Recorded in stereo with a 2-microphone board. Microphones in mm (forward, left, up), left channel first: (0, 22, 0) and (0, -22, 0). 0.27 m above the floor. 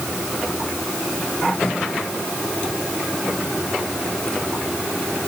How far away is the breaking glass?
I don't hear breaking glass.